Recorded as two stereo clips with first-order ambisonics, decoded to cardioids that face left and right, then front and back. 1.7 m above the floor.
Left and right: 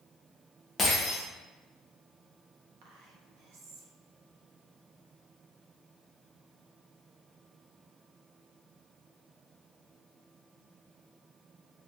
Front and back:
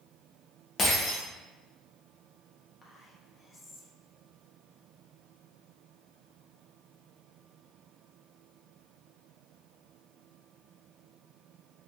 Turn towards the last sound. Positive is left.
turn(degrees=-70)